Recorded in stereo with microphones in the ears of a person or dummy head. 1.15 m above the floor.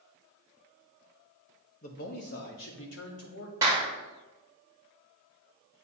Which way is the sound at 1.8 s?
40° left (ahead or behind).